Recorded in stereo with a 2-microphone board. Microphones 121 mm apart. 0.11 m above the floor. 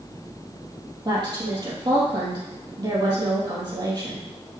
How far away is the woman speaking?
About 3.5 m.